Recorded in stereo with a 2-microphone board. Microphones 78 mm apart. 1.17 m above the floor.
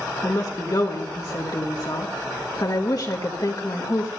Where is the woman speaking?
55° left (ahead or behind), 1.2 m.